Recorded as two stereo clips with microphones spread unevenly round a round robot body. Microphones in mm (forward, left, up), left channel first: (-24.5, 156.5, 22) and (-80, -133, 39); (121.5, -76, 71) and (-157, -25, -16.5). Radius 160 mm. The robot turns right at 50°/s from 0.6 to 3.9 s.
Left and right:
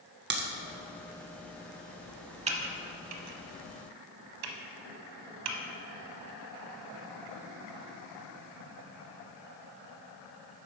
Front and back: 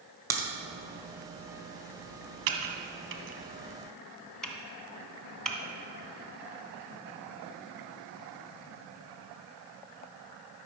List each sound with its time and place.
0.3 s a crack: 140° right, 1.2 m
2.5 s typing on a keyboard: 170° right, 0.9 m; by 5.6 s 100° right, 0.9 m